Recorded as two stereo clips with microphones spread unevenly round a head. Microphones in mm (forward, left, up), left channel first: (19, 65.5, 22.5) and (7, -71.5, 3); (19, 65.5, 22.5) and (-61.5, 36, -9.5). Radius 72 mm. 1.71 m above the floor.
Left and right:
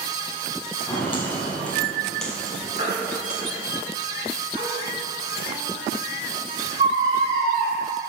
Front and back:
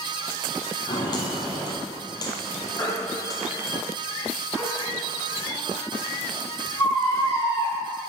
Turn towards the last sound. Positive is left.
turn(degrees=-55)